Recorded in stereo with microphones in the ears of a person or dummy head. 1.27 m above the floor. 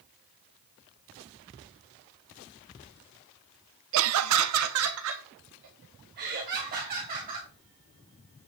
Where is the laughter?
65° right (ahead or behind), 0.7 m; by 7.5 s 40° right (ahead or behind), 3 m.